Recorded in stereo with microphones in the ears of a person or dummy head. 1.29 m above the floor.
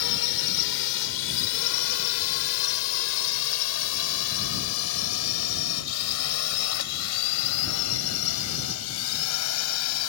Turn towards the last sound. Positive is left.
turn(degrees=80)